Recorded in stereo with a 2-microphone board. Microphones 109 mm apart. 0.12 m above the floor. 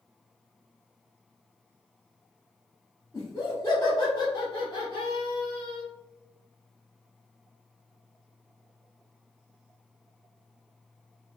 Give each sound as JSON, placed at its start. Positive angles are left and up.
{"t": 3.1, "sound": "laughter", "side_deg": 30, "distance_m": 1.3}